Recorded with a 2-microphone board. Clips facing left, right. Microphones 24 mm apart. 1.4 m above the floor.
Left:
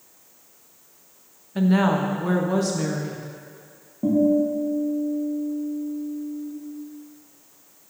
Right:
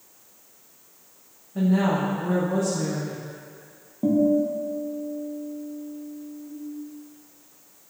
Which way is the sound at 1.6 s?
80° left.